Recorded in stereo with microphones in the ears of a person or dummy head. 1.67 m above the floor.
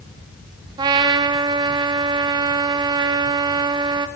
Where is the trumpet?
25° right (ahead or behind), 0.7 m.